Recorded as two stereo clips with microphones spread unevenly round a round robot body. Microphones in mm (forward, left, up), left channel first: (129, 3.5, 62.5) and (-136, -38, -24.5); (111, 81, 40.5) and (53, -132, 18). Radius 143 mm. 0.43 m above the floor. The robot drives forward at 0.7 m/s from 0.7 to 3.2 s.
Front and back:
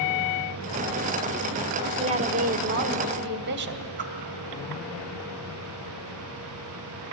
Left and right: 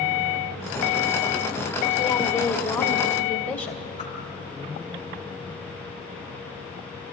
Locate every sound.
2.0 s a woman speaking: 145° left, 1.4 m; by 3.8 s 160° left, 2 m
4.0 s a whoosh: 145° left, 2.5 m